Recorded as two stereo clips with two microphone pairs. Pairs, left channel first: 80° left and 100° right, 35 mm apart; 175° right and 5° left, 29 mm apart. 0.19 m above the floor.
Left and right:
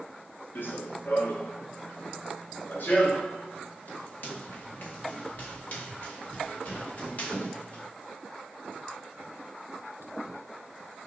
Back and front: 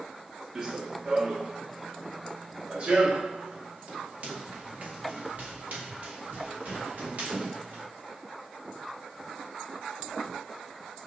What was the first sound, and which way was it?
Running footsteps, 75° left.